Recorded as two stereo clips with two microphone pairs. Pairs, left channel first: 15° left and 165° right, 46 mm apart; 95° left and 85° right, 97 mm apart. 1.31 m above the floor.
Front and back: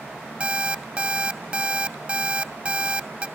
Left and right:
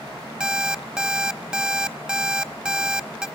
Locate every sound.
0.4 s an alarm clock: 145° right, 0.5 m